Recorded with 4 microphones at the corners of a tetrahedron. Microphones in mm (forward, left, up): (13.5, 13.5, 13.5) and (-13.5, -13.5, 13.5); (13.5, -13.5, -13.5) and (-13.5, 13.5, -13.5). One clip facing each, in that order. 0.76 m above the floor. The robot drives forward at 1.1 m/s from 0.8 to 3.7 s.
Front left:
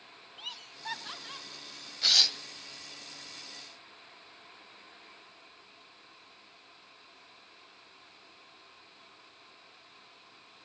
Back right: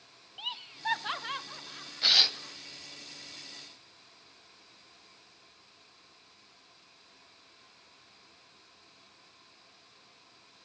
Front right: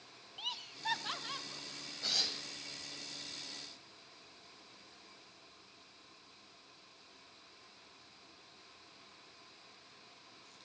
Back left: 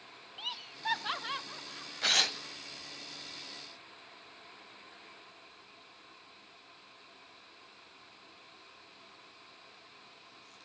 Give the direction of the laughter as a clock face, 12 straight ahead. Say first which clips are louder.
Back right 6 dB, back left 2 dB; 5 o'clock.